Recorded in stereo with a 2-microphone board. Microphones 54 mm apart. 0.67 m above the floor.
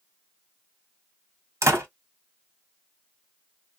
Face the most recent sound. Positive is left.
turn(degrees=-70)  # may be behind; listen again after turning